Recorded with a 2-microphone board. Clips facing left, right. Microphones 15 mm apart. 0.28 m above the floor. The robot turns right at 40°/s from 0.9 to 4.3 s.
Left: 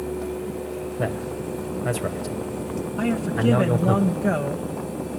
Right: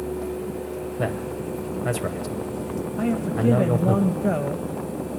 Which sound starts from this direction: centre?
A man speaking, at 1.0 s.